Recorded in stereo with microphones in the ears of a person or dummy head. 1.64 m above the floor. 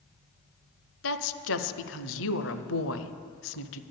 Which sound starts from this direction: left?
A woman speaking, at 1.0 s.